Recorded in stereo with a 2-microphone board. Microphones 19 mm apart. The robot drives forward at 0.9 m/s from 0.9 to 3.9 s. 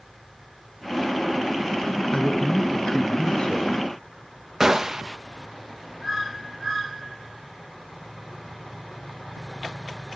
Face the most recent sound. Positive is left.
turn(degrees=-25)  # may be behind; listen again after turning